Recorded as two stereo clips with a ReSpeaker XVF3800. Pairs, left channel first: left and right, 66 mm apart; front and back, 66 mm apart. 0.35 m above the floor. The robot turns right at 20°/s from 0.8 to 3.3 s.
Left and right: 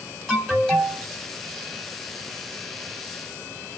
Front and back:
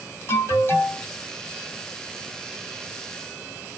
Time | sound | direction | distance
0.3 | an alarm | 15° left | 2.0 m